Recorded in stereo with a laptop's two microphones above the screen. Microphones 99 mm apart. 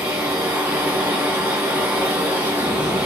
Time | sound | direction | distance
0.0 | a machine running | 15° right (ahead or behind) | 1.2 m